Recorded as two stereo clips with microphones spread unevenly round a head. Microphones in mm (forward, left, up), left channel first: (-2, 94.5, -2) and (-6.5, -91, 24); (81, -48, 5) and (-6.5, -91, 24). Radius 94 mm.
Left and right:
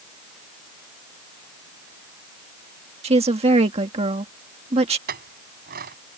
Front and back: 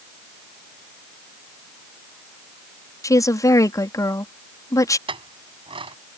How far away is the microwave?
No microwave in this recording.